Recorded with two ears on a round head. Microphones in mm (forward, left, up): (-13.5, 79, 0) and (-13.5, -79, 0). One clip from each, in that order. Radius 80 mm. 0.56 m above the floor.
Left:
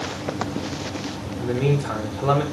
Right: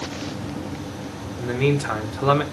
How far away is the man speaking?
About 1.5 m.